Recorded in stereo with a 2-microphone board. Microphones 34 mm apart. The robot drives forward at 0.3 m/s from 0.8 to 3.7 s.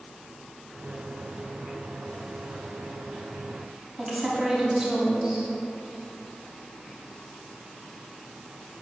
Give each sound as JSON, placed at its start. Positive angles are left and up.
{"t": 4.0, "sound": "a woman speaking", "side_deg": -10, "distance_m": 0.9}